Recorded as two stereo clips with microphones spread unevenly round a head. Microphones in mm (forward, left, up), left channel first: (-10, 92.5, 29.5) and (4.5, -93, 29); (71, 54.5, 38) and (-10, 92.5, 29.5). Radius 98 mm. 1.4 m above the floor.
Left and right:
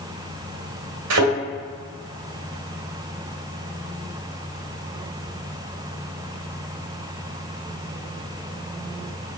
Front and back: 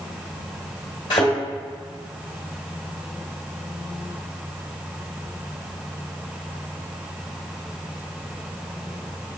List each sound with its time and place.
1.1 s a thud: 85° right, 2 m